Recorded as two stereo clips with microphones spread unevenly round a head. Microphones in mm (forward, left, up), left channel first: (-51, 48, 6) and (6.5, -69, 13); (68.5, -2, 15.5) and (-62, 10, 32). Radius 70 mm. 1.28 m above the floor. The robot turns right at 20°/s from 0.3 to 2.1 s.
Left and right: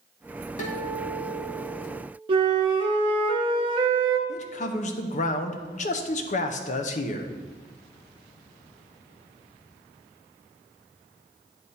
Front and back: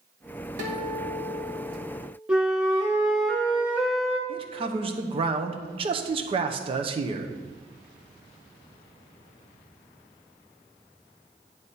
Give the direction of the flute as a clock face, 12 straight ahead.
4 o'clock.